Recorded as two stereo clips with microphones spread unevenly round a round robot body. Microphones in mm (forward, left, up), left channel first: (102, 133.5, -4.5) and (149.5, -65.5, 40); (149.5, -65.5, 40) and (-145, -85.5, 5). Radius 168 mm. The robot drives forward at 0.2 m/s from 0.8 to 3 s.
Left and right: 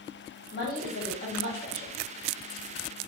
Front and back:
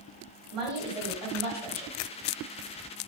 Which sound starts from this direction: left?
A woman speaking, at 0.5 s.